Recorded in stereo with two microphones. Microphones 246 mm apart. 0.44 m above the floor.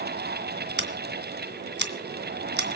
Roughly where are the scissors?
Right.